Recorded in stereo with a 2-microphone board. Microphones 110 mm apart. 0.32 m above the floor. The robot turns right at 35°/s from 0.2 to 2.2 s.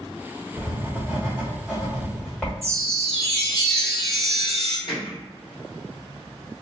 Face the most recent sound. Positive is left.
turn(degrees=50)  # may be behind; listen again after turning